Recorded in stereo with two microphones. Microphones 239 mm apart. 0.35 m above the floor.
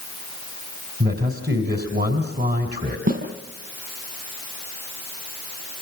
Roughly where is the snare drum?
Right.